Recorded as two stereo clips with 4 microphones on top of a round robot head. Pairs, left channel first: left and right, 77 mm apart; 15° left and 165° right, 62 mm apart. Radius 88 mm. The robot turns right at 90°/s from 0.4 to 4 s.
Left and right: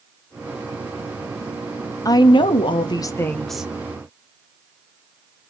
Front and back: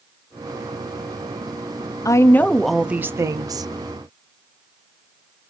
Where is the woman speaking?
45° left, 0.8 m; by 3.7 s 165° right, 0.8 m.